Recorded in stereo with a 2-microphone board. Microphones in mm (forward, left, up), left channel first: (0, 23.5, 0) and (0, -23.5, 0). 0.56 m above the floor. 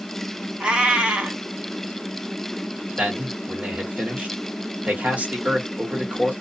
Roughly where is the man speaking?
Right.